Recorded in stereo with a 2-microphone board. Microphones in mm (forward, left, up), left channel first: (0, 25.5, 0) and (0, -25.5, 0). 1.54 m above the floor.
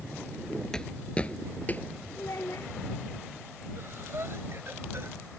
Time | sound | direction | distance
0.7 | footsteps | 15° left (ahead or behind) | ?
2.2 | a child speaking | 75° left (ahead or behind) | ?
3.8 | breathing | 50° right (ahead or behind) | ?